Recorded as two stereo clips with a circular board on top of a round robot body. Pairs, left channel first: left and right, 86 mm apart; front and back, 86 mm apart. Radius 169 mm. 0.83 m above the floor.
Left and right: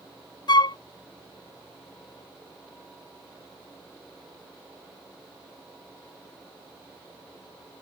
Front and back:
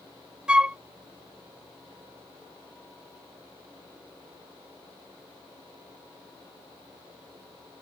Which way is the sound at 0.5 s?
105° left.